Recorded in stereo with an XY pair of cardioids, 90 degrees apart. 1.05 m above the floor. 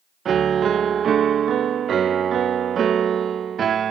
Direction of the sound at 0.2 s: 60° right.